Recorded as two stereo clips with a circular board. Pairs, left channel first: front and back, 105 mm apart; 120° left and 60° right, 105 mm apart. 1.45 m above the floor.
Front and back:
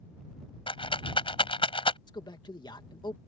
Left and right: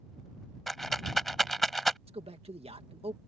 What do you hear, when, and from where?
0.7 s a rattle: 30° left
2.1 s a man speaking: 45° right